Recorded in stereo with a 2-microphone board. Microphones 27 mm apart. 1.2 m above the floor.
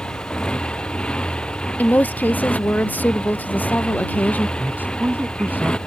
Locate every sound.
0.0 s a motorcycle: 35° left (ahead or behind)
1.8 s a woman speaking: 90° left
4.6 s a man speaking: 85° right